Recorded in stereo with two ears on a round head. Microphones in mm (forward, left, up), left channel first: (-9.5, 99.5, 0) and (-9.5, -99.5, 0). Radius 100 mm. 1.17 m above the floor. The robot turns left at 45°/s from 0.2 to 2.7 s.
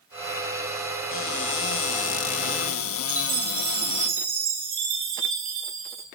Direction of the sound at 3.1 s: 40° right (ahead or behind).